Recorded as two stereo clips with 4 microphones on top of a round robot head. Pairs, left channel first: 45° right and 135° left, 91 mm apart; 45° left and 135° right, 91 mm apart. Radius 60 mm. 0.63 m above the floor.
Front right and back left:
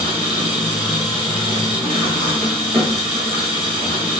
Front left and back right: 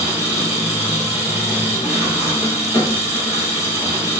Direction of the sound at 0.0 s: 100° left.